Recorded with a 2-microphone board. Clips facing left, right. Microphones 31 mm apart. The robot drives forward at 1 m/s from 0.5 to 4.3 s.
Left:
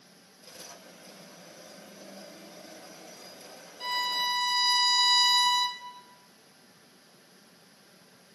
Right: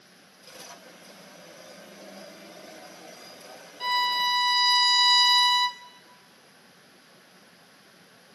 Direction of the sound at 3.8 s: 25° right (ahead or behind).